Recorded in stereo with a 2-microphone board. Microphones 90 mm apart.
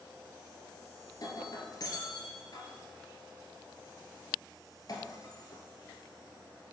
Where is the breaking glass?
50° left (ahead or behind), 2 m.